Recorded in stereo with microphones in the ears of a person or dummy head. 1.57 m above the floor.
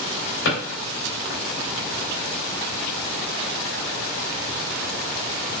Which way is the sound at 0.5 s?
55° left (ahead or behind).